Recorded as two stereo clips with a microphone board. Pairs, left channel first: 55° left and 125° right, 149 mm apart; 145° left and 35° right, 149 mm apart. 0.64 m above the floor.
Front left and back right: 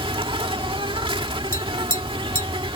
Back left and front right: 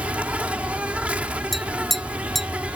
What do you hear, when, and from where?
0.0 s an insect: 110° right
1.5 s tapping: 55° left